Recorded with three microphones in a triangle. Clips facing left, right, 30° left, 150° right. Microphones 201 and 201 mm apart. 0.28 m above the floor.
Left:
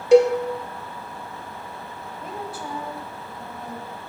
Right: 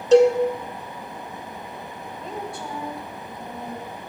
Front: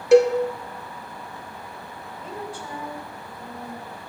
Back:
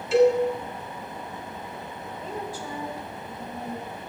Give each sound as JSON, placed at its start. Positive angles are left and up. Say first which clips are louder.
{"t": 0.1, "sound": "a cowbell", "louder": "even, front 4 dB", "azimuth_deg": 10, "distance_m": 0.7}
{"t": 2.2, "sound": "a woman speaking", "louder": "right 1 dB, even", "azimuth_deg": 175, "distance_m": 1.5}